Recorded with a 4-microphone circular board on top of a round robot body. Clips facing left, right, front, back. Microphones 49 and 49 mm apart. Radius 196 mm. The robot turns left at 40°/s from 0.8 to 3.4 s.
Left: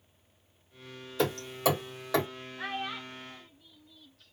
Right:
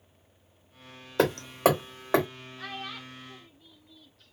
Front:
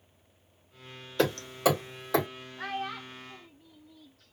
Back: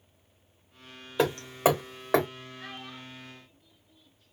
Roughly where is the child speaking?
Ahead left.